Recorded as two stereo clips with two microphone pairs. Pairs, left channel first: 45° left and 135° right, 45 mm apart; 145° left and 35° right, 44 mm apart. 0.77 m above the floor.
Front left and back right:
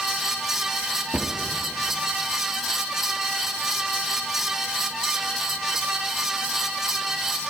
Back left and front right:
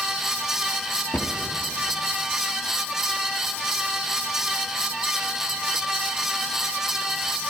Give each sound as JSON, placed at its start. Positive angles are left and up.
{"t": 1.1, "sound": "a cupboard door", "azimuth_deg": 170, "distance_m": 1.3}